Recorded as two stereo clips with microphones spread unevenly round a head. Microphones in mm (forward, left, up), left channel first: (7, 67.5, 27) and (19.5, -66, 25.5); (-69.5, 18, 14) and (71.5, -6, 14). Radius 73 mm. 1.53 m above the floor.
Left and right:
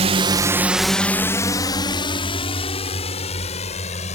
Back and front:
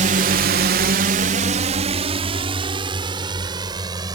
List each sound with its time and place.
0.0 s a drone: 45° right; by 4.1 s 55° left